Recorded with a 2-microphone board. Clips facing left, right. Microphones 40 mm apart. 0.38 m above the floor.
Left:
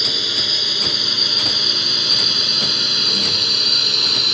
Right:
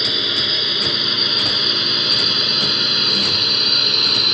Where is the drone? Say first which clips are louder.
Right 2 dB; 15° right (ahead or behind); by 4.3 s 10° right (ahead or behind).